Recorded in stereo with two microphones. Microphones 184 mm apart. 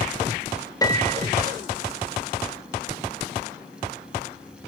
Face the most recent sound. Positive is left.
turn(degrees=20)  # may be behind; listen again after turning